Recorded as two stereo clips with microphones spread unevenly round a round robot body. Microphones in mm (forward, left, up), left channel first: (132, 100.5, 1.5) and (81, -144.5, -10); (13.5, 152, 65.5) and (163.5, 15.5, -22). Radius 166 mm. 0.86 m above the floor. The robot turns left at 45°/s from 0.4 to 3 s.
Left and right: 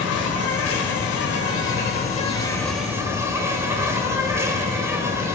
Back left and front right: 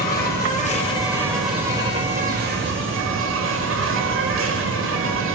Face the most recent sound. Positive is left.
turn(degrees=-20)